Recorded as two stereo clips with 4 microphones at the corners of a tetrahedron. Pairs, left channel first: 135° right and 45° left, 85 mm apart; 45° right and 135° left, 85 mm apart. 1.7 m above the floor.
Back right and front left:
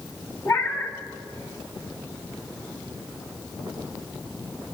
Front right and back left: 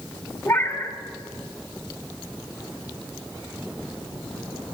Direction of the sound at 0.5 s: 100° right.